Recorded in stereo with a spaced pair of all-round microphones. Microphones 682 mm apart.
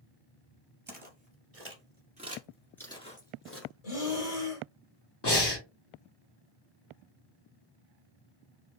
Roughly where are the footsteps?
Right.